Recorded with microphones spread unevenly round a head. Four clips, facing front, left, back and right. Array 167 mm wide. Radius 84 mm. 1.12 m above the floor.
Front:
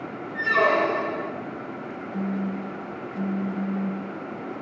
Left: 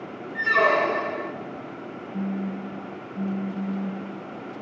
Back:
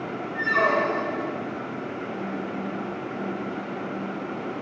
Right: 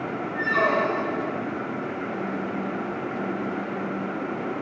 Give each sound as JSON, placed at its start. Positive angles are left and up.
{"t": 0.3, "sound": "a squeak", "azimuth_deg": 30, "distance_m": 0.9}
{"t": 2.1, "sound": "a phone buzzing", "azimuth_deg": 40, "distance_m": 0.6}